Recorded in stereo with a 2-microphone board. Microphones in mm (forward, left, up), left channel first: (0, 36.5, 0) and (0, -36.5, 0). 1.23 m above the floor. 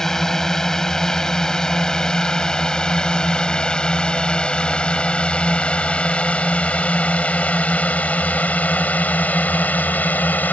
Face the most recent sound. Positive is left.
turn(degrees=25)  # may be behind; listen again after turning